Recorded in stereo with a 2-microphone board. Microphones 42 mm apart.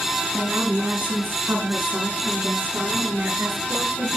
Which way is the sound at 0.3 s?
60° right (ahead or behind).